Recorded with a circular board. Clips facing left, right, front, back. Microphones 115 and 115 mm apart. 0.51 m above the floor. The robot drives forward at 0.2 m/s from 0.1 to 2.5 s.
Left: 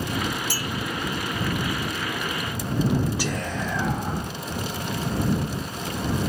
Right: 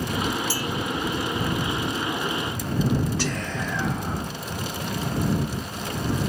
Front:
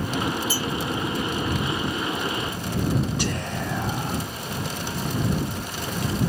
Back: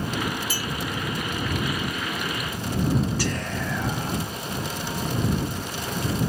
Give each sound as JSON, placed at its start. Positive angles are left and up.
{"t": 0.5, "sound": "a clink", "azimuth_deg": -165, "distance_m": 1.6}
{"t": 3.2, "sound": "whispering", "azimuth_deg": 35, "distance_m": 0.7}